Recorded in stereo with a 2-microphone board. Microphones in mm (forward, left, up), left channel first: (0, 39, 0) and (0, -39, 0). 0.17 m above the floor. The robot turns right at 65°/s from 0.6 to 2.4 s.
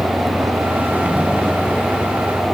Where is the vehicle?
45° right; by 2.5 s 70° left.